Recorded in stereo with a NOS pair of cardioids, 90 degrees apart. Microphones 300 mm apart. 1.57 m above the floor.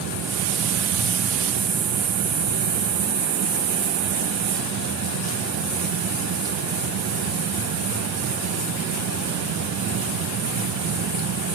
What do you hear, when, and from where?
0.0 s a fan: 60° right, 1.4 m